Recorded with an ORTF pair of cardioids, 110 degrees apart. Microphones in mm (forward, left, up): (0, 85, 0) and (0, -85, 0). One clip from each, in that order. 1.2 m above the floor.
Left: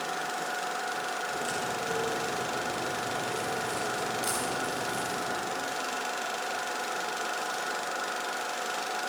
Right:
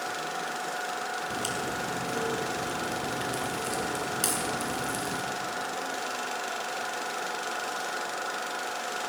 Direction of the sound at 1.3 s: 70° right.